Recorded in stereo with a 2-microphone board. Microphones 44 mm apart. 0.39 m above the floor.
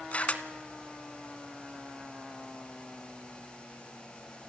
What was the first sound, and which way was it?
A camera shutter, 35° left (ahead or behind).